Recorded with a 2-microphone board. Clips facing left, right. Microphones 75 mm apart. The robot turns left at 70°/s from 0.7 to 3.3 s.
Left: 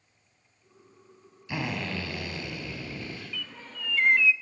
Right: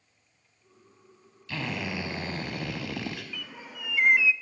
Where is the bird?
10° right (ahead or behind), 0.8 m.